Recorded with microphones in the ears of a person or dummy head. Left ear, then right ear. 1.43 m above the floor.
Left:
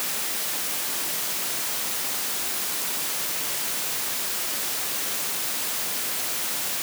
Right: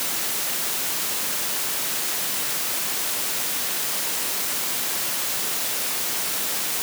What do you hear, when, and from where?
Only background noise.